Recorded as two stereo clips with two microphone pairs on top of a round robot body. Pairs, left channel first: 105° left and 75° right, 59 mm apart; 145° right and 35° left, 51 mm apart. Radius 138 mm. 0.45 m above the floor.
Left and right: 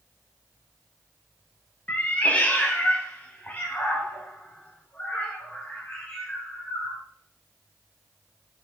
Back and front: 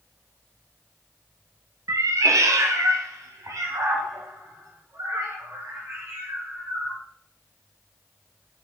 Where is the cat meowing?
35° left, 0.9 m.